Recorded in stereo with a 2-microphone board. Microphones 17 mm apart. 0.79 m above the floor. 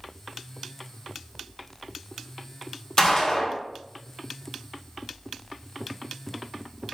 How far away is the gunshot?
About 1.3 m.